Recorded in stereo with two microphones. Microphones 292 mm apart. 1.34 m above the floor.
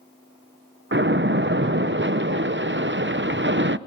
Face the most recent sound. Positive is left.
turn(degrees=-40)  # may be behind; listen again after turning